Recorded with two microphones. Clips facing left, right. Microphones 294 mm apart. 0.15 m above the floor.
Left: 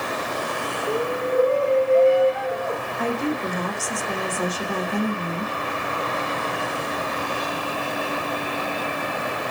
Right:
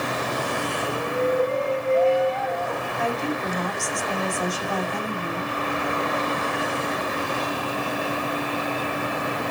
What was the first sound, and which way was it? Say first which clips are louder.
A shout: left 1 dB; 60° left (ahead or behind).